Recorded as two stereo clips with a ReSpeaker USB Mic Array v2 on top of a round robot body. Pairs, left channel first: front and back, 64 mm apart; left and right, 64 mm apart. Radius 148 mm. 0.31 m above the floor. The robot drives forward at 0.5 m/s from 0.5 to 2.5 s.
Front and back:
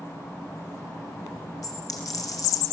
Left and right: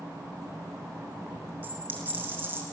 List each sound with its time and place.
1.6 s a dropped coin: 25° right, 4 m; by 2.6 s 30° right, 3.5 m